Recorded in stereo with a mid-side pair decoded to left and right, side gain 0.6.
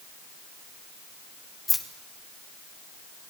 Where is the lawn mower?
No lawn mower in this recording.